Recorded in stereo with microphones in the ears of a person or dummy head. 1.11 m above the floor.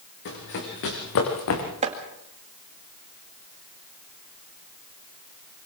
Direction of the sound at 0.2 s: 60° left (ahead or behind).